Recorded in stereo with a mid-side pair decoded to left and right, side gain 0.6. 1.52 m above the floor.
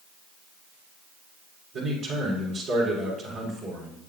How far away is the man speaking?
About 4 m.